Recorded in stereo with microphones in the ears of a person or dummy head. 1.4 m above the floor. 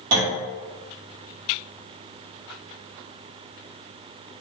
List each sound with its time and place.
0.1 s a clunk: 60° right (ahead or behind), 1.0 m